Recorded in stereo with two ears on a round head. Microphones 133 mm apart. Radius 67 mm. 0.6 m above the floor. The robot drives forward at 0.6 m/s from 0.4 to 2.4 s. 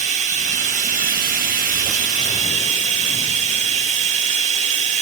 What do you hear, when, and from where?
0.0 s running water: 50° right (ahead or behind), 1.3 m